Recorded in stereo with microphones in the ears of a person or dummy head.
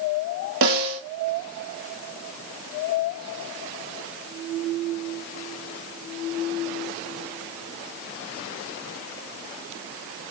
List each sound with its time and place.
0.6 s a snare drum: 55° right (ahead or behind), 1.0 m